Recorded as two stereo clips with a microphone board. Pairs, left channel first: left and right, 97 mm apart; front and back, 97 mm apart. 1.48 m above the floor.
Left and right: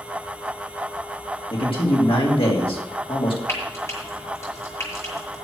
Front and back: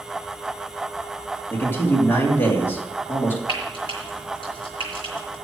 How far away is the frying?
About 6 m.